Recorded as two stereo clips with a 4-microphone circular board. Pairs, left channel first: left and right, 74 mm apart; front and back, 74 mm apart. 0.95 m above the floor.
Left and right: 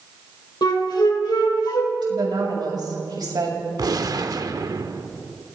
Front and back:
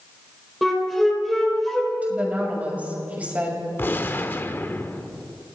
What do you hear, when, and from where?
0.6 s a flute: 90° left, 4.5 m
2.0 s a woman speaking: 110° right, 6.5 m
3.8 s a gunshot: 60° right, 1.2 m